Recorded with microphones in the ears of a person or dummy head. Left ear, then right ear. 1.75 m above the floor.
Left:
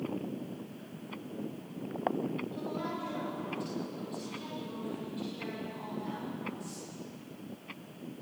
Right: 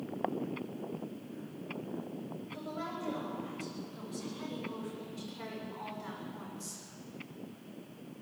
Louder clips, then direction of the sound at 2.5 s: Left 3 dB; 20° right (ahead or behind).